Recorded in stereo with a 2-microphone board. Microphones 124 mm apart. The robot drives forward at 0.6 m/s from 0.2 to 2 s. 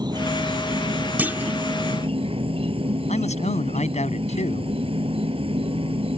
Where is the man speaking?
75° left (ahead or behind).